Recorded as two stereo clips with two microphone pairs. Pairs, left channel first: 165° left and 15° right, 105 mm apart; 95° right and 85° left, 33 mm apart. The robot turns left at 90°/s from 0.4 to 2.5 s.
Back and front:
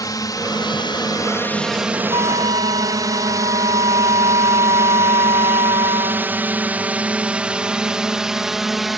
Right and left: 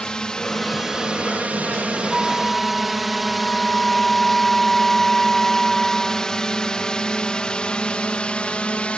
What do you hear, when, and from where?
0.0 s a drone: 155° right; by 9.0 s 105° right
2.1 s a flute: 10° left; by 6.3 s 25° right